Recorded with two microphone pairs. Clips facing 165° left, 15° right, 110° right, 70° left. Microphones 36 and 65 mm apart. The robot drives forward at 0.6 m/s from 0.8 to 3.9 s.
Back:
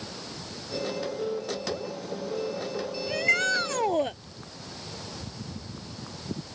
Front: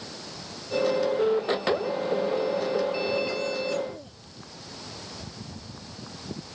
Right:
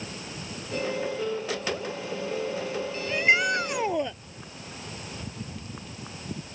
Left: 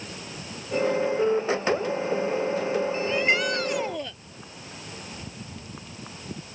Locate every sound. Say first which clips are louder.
3.1 s a shout: back 3 dB, right 4 dB; straight behind